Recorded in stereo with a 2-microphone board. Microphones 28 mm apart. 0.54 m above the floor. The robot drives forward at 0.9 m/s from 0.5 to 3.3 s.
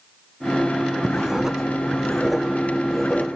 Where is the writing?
30° right (ahead or behind), 0.9 m; by 3.2 s 10° right (ahead or behind), 3 m.